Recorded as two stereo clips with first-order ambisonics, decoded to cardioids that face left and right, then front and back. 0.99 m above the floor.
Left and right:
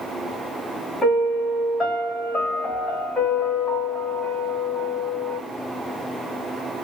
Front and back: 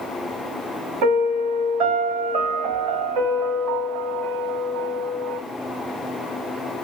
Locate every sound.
1.0 s a piano: 170° left, 1.7 m